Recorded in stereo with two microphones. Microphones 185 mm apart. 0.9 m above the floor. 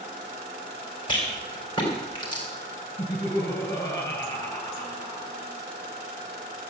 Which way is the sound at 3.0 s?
20° left (ahead or behind).